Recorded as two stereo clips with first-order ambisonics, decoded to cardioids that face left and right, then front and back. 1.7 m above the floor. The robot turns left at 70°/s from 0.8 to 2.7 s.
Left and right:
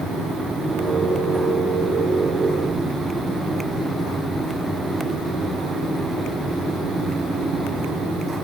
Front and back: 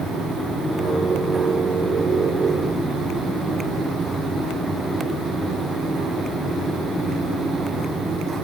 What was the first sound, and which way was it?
Only background noise.